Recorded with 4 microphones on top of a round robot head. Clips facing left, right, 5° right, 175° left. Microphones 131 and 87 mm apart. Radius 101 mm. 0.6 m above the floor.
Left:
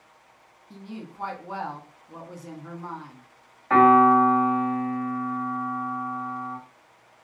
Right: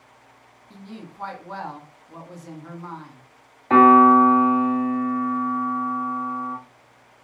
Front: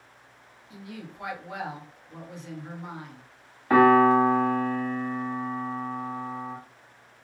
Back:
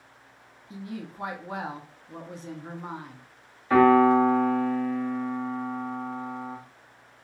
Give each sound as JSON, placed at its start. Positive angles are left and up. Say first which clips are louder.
{"t": 0.7, "sound": "a woman speaking", "louder": "left 1 dB, back 4 dB", "azimuth_deg": 165, "distance_m": 1.1}
{"t": 3.7, "sound": "a piano", "louder": "right 3 dB, even", "azimuth_deg": -35, "distance_m": 1.7}